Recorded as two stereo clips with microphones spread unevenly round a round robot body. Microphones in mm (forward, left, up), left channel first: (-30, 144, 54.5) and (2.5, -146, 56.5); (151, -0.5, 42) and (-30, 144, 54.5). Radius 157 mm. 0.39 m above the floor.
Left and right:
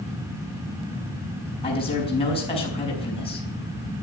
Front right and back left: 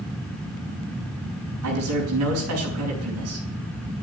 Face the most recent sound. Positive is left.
turn(degrees=170)